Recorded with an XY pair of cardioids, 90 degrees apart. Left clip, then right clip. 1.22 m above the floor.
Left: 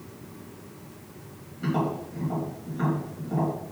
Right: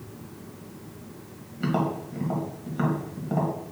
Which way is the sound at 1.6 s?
65° right.